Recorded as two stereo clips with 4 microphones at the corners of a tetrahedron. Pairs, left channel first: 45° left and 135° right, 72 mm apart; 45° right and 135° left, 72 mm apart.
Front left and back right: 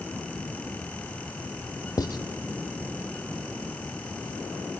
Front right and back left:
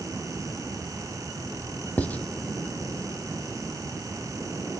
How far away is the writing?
About 1.3 m.